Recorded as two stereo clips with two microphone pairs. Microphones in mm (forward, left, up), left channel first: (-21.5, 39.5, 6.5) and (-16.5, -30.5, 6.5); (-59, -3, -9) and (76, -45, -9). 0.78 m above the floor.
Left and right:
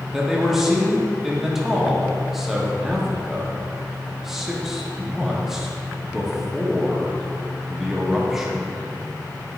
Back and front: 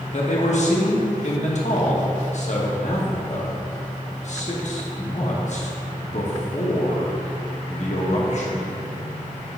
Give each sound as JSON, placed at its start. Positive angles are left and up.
{"t": 0.1, "sound": "a man speaking", "azimuth_deg": -170, "distance_m": 1.1}